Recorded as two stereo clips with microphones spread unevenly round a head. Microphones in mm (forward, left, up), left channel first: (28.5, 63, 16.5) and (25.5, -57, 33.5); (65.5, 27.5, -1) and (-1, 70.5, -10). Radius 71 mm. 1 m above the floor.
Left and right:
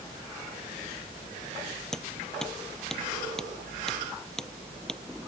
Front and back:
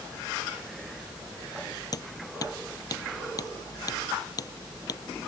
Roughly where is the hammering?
Ahead.